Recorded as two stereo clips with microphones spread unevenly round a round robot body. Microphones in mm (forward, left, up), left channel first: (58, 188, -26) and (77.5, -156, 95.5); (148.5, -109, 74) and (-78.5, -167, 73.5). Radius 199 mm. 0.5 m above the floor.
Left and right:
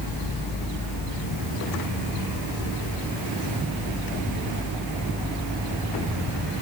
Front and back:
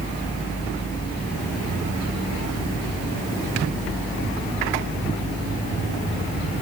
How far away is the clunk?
No clunk in this recording.